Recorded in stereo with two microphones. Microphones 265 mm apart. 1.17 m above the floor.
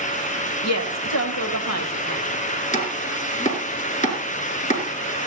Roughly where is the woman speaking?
Left.